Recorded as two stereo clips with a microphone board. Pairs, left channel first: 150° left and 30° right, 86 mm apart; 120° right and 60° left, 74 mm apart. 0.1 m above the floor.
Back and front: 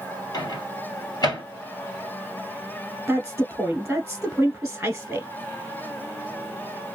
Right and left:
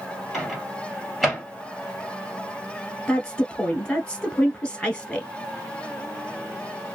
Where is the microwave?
155° left, 1.7 m.